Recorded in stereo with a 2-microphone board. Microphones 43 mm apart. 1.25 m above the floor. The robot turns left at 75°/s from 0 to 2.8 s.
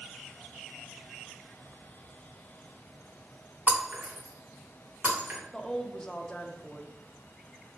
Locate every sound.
3.7 s breaking glass: 40° right (ahead or behind), 1.1 m
5.5 s a woman speaking: 15° left (ahead or behind), 0.5 m